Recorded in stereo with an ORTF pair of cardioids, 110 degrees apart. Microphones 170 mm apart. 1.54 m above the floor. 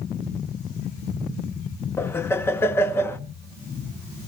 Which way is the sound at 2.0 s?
15° left.